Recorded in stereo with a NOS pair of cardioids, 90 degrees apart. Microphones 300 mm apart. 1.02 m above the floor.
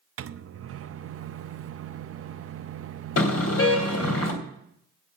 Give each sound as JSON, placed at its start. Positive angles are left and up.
{"t": 0.2, "sound": "a microwave", "azimuth_deg": -50, "distance_m": 0.7}
{"t": 3.2, "sound": "a car horn", "azimuth_deg": 50, "distance_m": 3.5}